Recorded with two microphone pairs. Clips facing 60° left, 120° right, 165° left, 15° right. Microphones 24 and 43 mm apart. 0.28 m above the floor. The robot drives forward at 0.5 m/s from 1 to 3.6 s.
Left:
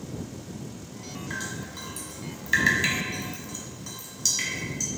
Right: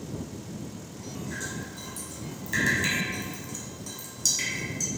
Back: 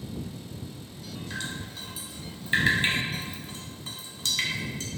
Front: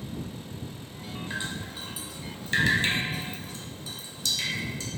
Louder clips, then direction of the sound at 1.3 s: Left 3 dB, front 2 dB; 55° left.